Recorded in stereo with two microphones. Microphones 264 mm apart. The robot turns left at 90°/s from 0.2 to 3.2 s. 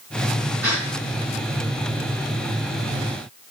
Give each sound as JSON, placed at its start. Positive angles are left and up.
{"t": 0.6, "sound": "a gasp", "side_deg": 70, "distance_m": 4.5}